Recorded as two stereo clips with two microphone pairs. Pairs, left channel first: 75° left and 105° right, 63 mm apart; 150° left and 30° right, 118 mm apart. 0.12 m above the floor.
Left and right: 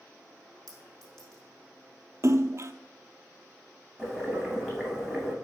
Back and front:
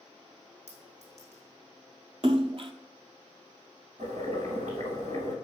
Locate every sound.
0.7 s a clink: 5° right, 5 m
2.2 s a splash: 65° right, 0.7 m
4.0 s boiling: 15° right, 3.5 m